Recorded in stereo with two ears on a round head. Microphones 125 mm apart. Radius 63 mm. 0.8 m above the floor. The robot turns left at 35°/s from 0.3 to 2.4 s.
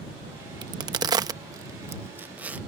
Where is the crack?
30° right (ahead or behind); by 2.6 s 15° right (ahead or behind).